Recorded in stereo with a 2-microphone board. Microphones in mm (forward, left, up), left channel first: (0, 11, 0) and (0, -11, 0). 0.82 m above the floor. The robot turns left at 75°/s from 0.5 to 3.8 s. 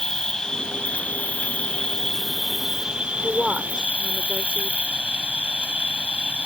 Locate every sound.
0.0 s an insect: 150° left; by 6.5 s 100° right
3.2 s a woman speaking: 5° right; by 4.8 s 50° right